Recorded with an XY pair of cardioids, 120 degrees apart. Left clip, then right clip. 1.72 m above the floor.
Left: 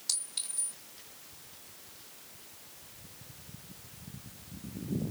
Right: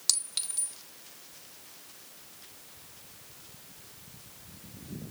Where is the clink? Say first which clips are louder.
Right 6 dB; 65° right, 2.5 m.